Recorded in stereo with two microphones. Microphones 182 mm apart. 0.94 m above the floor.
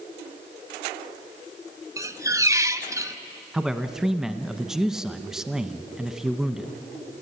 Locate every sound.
2.0 s a squeak: 20° right (ahead or behind), 0.6 m
3.5 s a man speaking: 5° right (ahead or behind), 1.0 m